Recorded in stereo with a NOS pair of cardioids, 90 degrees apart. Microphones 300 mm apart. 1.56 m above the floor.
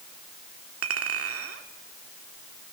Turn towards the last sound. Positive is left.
turn(degrees=-50)